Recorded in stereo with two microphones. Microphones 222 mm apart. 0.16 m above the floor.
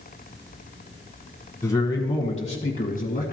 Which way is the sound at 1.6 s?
15° left (ahead or behind).